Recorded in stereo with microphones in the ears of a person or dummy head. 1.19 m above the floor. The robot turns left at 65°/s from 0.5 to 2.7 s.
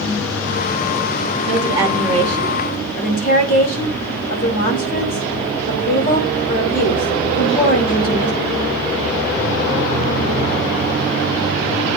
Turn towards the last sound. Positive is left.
turn(degrees=130)